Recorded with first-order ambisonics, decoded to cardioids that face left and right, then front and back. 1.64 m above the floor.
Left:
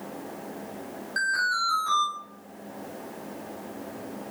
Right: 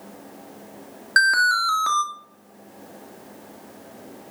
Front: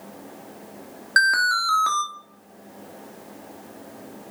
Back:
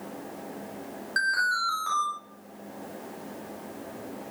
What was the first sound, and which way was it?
An alarm, 55° right.